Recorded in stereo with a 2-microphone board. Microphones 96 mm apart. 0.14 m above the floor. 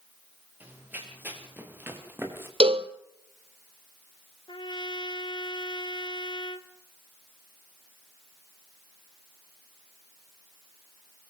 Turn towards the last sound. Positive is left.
turn(degrees=55)  # may be behind; listen again after turning